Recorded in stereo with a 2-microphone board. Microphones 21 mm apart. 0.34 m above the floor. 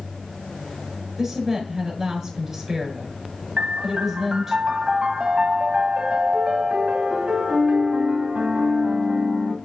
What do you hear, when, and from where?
1.2 s a woman speaking: 20° right (ahead or behind), 5 m
3.6 s a piano: 60° right (ahead or behind), 1.5 m